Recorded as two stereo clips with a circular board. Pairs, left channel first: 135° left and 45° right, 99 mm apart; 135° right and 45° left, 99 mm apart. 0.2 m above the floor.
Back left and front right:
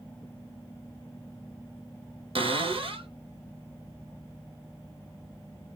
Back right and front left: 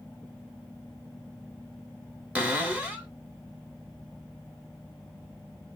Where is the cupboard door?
30° right, 1.3 m.